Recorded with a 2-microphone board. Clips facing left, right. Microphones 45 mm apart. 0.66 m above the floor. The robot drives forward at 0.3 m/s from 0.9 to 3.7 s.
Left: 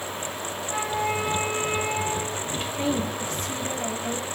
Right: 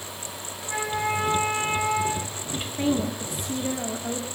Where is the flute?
55° right (ahead or behind), 5.5 m; by 2.4 s 50° right (ahead or behind), 5.5 m.